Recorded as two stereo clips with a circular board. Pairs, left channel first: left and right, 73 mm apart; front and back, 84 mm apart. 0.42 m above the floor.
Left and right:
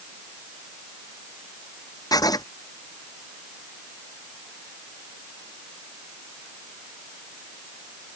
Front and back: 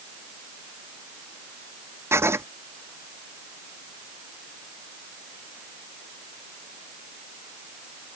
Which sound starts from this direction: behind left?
Writing, at 2.1 s.